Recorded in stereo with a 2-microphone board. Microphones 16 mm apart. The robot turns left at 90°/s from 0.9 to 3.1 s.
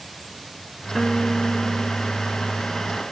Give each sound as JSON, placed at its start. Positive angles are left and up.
{"t": 0.9, "sound": "a guitar", "azimuth_deg": -160}